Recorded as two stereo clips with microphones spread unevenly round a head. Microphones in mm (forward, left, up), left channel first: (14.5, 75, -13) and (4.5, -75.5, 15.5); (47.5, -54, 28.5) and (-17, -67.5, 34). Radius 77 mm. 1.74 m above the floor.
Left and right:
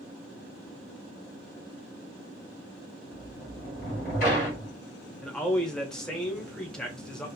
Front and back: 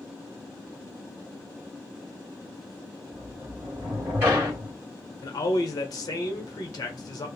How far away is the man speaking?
About 0.8 m.